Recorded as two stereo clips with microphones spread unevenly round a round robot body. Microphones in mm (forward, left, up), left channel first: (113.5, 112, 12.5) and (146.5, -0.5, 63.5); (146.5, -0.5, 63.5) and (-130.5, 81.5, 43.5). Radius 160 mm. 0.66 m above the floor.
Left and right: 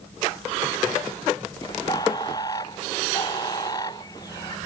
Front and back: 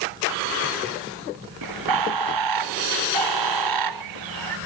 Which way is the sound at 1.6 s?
175° right.